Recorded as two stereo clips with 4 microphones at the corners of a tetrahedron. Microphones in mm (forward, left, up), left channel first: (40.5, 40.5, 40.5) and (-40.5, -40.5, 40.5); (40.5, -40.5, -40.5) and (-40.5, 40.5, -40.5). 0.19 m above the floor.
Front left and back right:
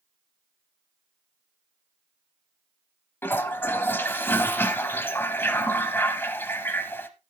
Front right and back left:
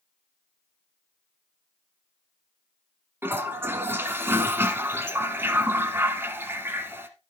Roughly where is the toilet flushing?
Left.